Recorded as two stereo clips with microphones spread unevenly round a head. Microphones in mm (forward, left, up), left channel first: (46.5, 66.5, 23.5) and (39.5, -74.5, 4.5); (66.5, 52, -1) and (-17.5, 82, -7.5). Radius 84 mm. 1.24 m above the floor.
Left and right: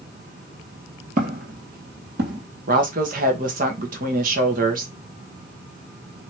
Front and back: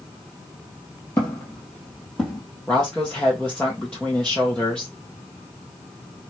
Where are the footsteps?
85° right, 1.8 m; by 2.4 s 110° right, 2.5 m.